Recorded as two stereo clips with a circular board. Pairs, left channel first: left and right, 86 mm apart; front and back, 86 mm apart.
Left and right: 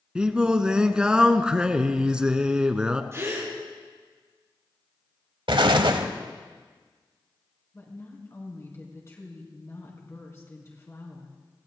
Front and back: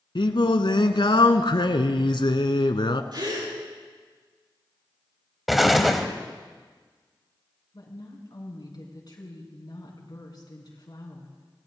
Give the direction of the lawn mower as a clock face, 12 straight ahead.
I don't hear a lawn mower.